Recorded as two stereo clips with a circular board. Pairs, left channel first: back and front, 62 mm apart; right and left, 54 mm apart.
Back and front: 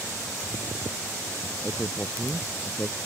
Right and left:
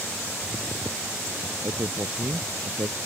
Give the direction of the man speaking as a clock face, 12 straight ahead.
8 o'clock.